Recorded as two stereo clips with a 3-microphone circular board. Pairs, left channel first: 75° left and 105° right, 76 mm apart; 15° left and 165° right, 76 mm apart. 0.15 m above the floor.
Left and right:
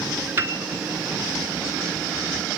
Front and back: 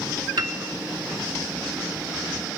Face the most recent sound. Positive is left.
turn(degrees=-160)